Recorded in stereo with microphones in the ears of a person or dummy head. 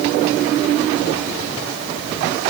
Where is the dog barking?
No dog barking in this recording.